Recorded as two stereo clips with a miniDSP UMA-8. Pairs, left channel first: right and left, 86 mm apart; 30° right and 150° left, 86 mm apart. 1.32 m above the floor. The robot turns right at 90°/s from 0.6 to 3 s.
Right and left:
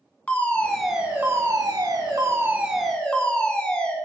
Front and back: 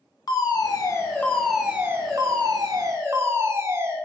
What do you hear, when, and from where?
0.3 s a fire alarm: 20° right, 1.2 m; by 4.0 s 165° right, 1.2 m